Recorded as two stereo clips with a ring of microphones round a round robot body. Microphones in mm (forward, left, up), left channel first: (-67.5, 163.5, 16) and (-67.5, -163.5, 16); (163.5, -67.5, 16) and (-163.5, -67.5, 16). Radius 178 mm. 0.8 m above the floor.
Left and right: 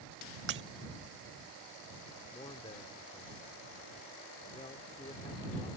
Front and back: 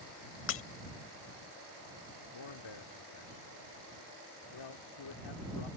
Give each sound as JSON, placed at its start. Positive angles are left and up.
{"t": 0.5, "sound": "breaking glass", "azimuth_deg": -40}
{"t": 2.3, "sound": "a man speaking", "azimuth_deg": 15}